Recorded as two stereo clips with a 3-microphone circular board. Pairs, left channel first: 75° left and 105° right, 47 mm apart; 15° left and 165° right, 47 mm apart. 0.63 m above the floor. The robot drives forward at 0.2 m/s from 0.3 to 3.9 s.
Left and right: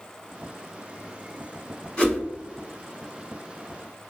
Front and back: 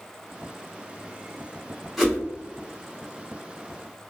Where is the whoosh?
110° left, 1.1 m; by 2.2 s 115° left, 1.1 m.